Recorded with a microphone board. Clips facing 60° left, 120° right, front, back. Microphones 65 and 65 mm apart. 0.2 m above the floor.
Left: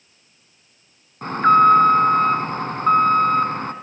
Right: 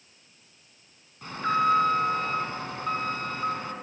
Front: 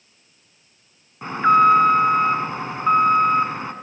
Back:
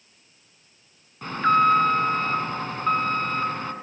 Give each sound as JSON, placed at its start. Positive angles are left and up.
{"t": 1.2, "sound": "an alarm", "azimuth_deg": 65, "distance_m": 1.3}